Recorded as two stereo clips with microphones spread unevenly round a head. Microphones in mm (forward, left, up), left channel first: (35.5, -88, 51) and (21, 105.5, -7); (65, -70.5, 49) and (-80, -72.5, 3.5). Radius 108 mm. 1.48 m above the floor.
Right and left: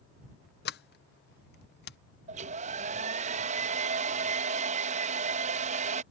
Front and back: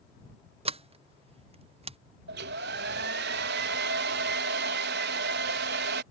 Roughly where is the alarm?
I don't hear an alarm.